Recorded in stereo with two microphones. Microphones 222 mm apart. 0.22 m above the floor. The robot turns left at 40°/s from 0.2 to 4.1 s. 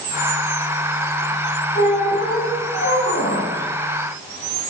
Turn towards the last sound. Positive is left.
turn(degrees=50)